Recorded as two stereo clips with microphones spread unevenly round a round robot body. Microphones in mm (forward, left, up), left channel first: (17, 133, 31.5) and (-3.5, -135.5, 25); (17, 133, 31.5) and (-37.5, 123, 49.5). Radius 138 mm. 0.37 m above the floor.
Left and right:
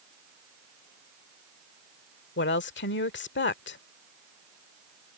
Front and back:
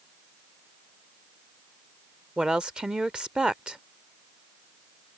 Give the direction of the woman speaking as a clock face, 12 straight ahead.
9 o'clock.